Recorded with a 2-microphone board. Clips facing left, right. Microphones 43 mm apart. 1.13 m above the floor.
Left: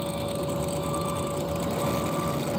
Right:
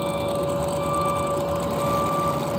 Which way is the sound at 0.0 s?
45° right (ahead or behind).